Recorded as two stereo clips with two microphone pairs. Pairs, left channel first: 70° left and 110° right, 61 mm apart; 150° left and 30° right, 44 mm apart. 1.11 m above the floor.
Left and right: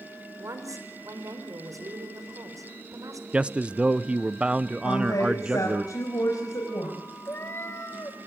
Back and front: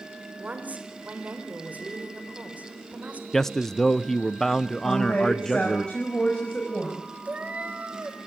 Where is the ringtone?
I don't hear a ringtone.